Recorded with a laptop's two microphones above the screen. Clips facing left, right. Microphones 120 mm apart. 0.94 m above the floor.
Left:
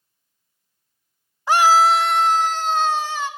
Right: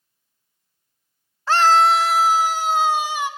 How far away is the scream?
About 0.7 m.